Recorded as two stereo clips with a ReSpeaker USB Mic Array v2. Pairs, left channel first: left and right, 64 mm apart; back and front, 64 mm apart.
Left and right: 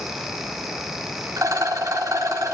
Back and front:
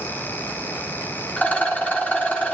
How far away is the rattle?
About 2.5 m.